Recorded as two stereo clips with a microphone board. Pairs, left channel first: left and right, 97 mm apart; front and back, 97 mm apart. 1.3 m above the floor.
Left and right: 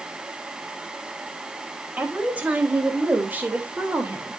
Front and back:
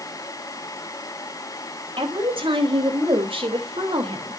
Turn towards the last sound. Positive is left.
turn(degrees=-160)